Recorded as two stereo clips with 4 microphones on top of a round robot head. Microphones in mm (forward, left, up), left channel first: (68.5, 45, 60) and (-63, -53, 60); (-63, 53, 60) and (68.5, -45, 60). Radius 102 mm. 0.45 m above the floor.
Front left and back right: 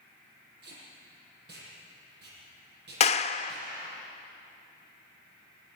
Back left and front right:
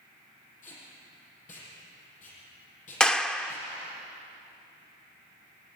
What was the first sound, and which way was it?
Tape being pulled, 170° right.